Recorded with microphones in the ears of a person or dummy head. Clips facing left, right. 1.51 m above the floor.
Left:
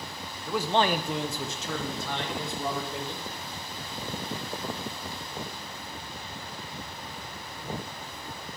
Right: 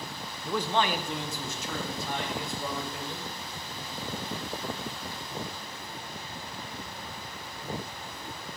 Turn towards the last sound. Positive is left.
turn(degrees=70)  # may be behind; listen again after turning